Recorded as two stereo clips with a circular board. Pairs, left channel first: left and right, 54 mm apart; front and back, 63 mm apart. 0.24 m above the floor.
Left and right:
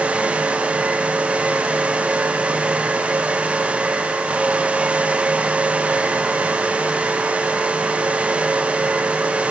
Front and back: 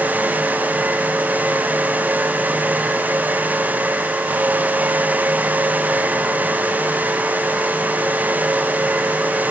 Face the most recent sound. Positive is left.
No sound to turn to.